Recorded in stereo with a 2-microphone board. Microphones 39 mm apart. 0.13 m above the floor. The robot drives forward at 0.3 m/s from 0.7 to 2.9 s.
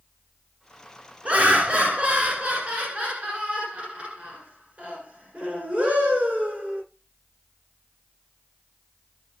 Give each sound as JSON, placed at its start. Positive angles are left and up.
{"t": 1.2, "sound": "laughter", "side_deg": -35, "distance_m": 1.2}